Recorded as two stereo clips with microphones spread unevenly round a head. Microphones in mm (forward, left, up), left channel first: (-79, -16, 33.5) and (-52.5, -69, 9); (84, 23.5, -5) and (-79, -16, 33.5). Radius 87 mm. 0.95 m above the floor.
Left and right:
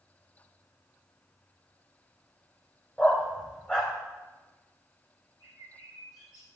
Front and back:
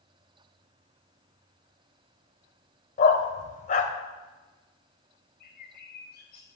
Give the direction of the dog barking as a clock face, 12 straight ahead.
10 o'clock.